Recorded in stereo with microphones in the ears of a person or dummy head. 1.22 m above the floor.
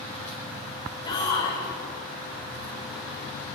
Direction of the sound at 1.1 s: 20° left (ahead or behind).